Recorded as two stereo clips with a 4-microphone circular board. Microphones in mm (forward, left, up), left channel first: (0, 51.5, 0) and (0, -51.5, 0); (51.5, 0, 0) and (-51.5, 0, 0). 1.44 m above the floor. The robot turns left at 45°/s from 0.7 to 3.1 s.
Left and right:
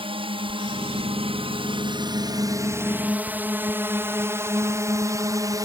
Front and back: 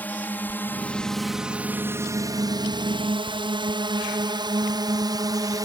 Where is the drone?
70° right; by 5.7 s 135° right.